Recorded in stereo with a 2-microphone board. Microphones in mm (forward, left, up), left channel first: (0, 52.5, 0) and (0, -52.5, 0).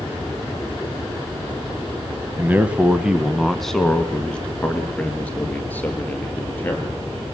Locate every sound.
2.4 s a man speaking: 20° right (ahead or behind), 1.0 m; by 7.1 s 20° left (ahead or behind), 3.5 m